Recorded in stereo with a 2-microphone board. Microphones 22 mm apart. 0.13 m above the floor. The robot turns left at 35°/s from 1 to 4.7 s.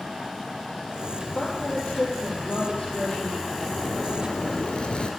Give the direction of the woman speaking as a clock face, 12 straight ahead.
9 o'clock.